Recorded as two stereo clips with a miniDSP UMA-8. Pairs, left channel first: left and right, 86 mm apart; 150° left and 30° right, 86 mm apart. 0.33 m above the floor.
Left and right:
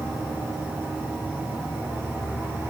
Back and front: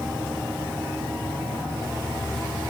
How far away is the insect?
About 6.5 m.